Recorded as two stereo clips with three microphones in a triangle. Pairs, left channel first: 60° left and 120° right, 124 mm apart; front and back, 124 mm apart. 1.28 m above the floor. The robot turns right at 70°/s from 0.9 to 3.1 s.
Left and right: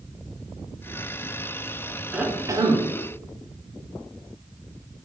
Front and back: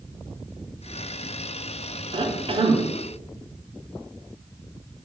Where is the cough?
160° left, 0.8 m; by 2.9 s 150° right, 0.8 m.